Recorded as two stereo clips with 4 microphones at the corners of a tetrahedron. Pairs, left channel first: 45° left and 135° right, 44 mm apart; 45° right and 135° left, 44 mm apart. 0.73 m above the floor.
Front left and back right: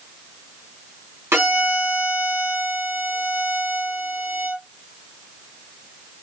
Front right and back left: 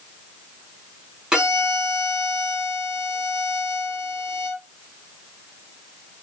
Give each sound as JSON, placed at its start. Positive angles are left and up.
{"t": 1.3, "sound": "a violin", "azimuth_deg": -155, "distance_m": 2.0}